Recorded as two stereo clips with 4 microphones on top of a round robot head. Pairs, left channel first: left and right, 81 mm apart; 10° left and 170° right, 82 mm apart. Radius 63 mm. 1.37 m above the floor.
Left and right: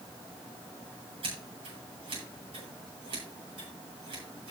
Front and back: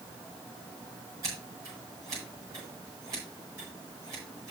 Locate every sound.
1.2 s scissors: 110° right, 9 m